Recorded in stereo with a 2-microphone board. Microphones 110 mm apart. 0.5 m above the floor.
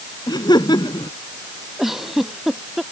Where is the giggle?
5° right (ahead or behind).